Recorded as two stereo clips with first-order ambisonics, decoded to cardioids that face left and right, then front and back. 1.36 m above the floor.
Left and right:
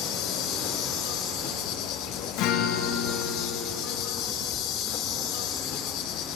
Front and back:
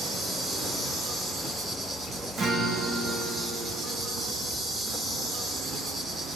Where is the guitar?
110° left, 2.0 m.